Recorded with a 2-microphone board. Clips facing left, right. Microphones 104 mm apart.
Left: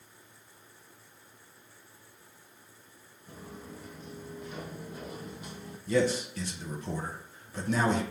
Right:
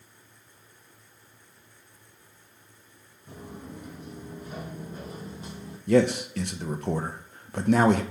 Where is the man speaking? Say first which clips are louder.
Right 6 dB; 65° right (ahead or behind), 0.6 m.